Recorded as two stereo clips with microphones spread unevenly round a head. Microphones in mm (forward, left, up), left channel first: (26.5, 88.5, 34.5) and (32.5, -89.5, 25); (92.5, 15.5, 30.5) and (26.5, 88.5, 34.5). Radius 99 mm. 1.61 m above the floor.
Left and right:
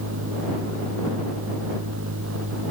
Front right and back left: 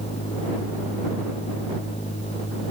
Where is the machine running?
95° right.